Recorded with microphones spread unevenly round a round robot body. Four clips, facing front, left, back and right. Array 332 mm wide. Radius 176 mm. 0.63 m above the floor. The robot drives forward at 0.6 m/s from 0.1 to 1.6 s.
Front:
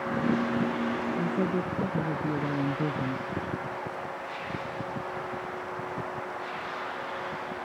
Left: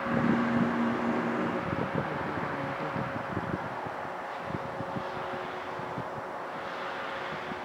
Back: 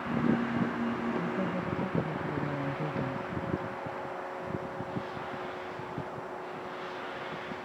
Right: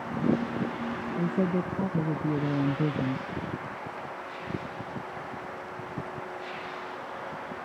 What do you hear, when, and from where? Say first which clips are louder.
1.2 s a woman speaking: right 2 dB, front 4 dB; 85° right